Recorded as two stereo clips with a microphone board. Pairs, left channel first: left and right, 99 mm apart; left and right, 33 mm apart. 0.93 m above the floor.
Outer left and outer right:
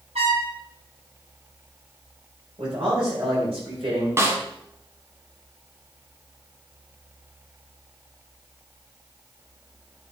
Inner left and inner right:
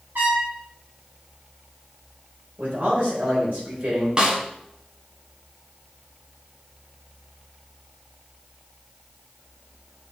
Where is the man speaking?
65° right (ahead or behind), 3.5 m.